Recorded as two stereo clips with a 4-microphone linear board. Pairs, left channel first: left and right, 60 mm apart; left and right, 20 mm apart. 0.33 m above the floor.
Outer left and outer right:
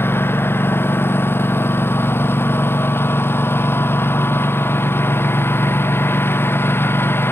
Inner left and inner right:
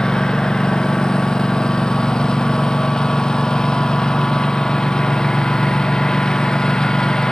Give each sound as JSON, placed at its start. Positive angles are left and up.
{"t": 0.0, "sound": "a lawn mower", "side_deg": 40}